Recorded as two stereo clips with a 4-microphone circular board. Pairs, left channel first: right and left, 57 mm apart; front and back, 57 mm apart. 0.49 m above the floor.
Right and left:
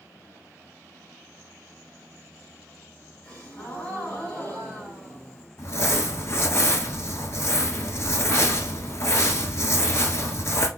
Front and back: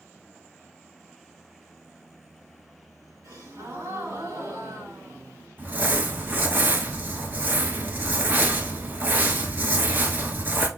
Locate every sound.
3.2 s a gasp: 160° right, 2.5 m
5.6 s crumpling: 125° right, 1.2 m